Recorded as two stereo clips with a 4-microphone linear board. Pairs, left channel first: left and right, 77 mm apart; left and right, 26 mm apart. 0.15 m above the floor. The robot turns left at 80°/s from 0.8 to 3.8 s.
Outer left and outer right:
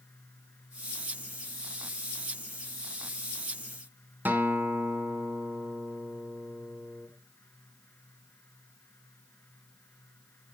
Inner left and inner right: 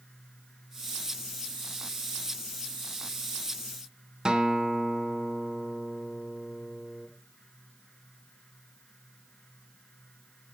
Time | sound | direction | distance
4.2 | a guitar | 25° right (ahead or behind) | 1.7 m